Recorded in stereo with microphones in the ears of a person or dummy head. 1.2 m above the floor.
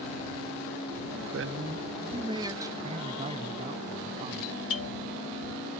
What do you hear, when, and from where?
1.3 s a man speaking: 65° right (ahead or behind); by 2.7 s 15° right (ahead or behind)
2.8 s a man speaking: 30° right (ahead or behind)
4.4 s a doorbell: 80° left